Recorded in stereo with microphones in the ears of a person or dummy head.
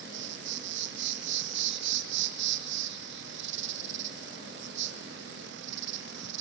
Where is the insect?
70° right (ahead or behind), 1.1 m.